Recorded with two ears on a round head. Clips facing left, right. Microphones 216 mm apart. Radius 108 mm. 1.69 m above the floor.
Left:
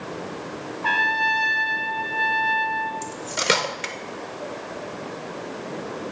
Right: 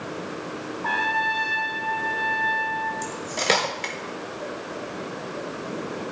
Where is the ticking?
No ticking in this recording.